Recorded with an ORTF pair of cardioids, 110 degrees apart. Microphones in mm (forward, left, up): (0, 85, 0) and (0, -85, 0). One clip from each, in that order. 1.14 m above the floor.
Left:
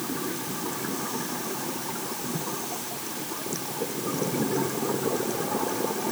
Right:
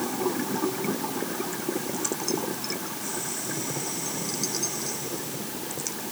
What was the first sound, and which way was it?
Only background noise.